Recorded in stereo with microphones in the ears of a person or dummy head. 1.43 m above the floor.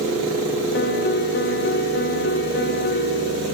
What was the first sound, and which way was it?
A piano, 50° left (ahead or behind).